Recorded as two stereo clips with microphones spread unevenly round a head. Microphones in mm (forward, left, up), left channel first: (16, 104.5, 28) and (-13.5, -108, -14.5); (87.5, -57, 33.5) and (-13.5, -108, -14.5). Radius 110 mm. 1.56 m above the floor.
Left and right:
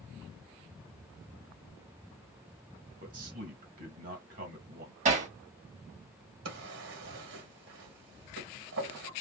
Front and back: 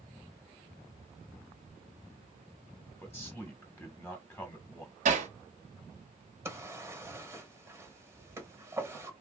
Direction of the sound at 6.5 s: 65° right.